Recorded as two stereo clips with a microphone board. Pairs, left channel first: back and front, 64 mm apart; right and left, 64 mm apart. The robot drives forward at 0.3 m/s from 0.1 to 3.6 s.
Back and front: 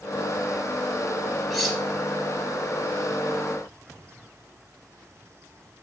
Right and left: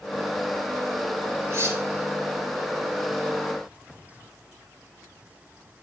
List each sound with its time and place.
1.5 s cutlery clinking: 85° left, 1.0 m; by 1.8 s 95° left, 1.0 m